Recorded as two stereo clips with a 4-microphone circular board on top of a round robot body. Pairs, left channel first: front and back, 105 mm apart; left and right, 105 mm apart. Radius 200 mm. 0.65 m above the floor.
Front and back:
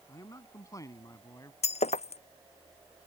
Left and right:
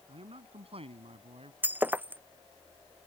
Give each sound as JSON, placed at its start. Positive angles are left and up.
{"t": 0.1, "sound": "a man speaking", "azimuth_deg": -60}
{"t": 1.6, "sound": "breaking glass", "azimuth_deg": -15}